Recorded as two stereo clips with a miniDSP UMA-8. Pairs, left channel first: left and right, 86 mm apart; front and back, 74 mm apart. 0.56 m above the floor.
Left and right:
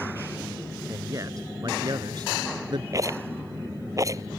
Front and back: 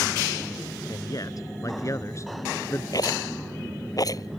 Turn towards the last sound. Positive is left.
turn(degrees=-40)